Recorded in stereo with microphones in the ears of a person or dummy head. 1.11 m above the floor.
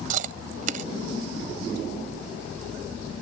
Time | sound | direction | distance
0.1 | chewing | 45° right (ahead or behind) | ?